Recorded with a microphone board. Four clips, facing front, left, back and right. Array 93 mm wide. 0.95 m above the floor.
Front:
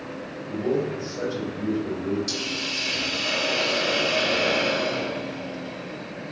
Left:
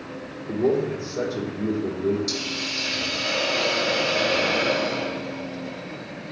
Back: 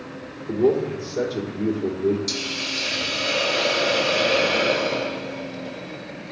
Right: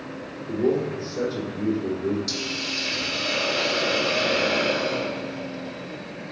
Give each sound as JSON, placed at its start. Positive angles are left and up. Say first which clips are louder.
{"t": 0.5, "sound": "a man speaking", "louder": "left 1 dB, back 5 dB", "azimuth_deg": 175, "distance_m": 3.5}
{"t": 2.3, "sound": "a hiss", "louder": "even, back 1 dB", "azimuth_deg": 180, "distance_m": 3.5}